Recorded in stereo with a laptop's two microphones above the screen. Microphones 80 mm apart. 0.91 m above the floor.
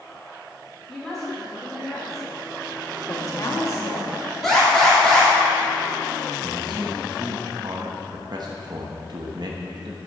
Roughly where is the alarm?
Centre.